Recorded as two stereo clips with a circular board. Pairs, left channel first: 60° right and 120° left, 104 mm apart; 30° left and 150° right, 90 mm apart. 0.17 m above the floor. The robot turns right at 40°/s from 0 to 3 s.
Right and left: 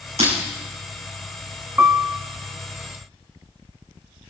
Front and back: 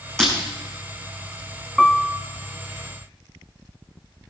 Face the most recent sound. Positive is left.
turn(degrees=170)